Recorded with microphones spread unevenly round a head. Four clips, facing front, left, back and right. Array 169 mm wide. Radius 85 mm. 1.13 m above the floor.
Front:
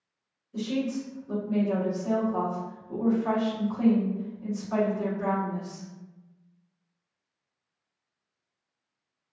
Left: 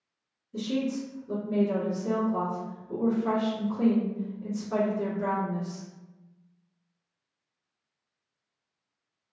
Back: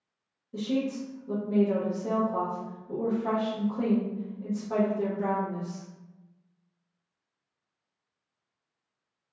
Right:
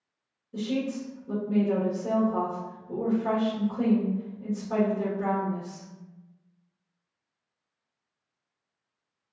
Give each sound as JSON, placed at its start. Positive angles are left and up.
{"t": 0.5, "sound": "a woman speaking", "azimuth_deg": -140, "distance_m": 1.1}